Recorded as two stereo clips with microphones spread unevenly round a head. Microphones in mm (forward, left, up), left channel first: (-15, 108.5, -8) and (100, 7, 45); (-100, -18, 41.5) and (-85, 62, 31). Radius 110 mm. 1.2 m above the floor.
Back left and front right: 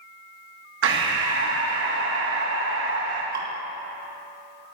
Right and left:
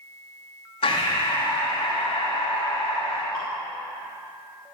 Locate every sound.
0.8 s breathing: 55° right, 2.5 m
3.3 s dripping: 15° right, 3 m